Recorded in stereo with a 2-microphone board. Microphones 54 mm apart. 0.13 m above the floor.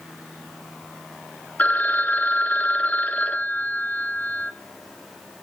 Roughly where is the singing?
No singing in this recording.